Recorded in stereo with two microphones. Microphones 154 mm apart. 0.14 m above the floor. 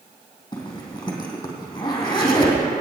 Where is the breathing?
No breathing in this recording.